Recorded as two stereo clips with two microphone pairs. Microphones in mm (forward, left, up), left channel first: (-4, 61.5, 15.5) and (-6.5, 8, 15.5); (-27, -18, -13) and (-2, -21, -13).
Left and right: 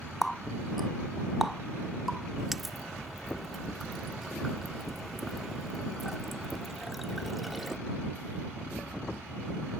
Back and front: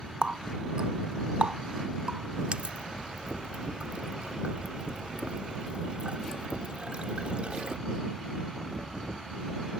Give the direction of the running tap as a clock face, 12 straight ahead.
12 o'clock.